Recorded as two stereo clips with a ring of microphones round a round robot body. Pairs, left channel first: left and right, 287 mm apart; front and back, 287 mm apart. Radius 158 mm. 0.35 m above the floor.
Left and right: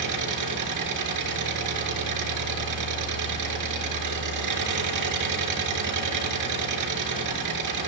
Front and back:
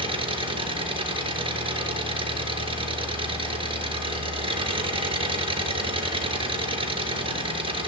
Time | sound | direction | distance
0.0 | an engine running | 110° right | 4 m